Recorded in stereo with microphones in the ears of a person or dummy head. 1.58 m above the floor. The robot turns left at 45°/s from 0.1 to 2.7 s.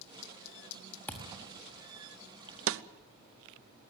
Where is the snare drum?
75° right (ahead or behind), 0.8 m.